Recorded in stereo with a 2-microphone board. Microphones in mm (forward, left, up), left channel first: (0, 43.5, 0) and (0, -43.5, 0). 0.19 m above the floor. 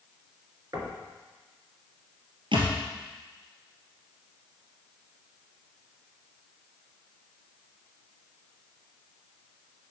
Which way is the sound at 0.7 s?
40° right (ahead or behind).